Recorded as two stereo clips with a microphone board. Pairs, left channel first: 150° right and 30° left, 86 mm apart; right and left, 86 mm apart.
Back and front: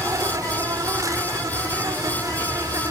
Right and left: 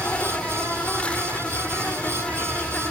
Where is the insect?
15° right, 1.5 m.